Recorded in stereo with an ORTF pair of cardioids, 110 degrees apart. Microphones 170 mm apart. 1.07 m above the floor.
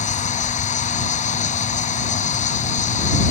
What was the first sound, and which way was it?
An insect, 45° left.